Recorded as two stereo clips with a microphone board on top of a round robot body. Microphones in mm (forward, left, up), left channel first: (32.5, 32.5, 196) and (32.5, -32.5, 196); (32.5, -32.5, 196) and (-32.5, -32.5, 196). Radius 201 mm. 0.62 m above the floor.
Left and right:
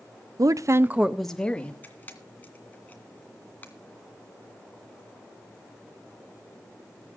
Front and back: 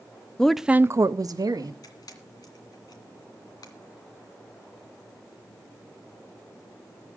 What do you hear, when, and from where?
0.4 s a woman speaking: 80° right, 0.9 m; by 1.7 s 160° left, 1.4 m
1.8 s a camera shutter: 25° left, 2.5 m